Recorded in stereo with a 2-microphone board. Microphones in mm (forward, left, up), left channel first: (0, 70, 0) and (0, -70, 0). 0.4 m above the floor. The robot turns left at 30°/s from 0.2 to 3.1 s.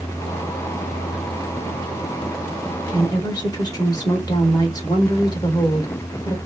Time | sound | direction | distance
2.9 | a woman speaking | 25° left (ahead or behind) | 1.5 m